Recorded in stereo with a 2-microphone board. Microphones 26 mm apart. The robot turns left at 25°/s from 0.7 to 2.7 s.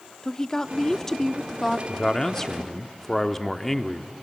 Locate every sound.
0.2 s a woman speaking: 20° left (ahead or behind), 0.8 m; by 1.8 s 5° left (ahead or behind), 0.8 m
1.9 s a man speaking: 25° left (ahead or behind), 1.0 m; by 4.1 s 10° left (ahead or behind), 1.0 m